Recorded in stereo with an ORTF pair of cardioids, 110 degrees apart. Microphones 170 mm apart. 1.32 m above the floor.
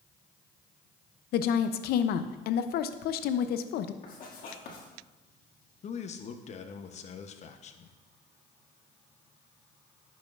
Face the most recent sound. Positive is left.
turn(degrees=40)